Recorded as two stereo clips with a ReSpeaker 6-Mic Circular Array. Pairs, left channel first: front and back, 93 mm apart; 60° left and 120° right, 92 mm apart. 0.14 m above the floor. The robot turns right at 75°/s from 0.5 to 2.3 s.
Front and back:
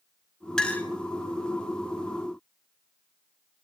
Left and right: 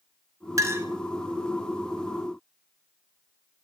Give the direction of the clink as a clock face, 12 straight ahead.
3 o'clock.